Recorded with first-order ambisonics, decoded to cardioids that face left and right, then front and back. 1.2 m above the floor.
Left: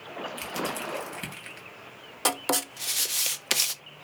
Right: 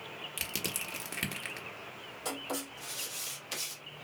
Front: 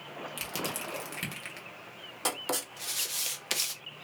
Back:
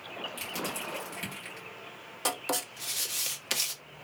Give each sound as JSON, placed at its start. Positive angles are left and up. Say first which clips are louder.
{"t": 0.4, "sound": "crushing", "louder": "left 4 dB, front 2 dB", "azimuth_deg": -65, "distance_m": 1.3}
{"t": 2.2, "sound": "writing", "louder": "left 11 dB, back 1 dB", "azimuth_deg": 90, "distance_m": 0.5}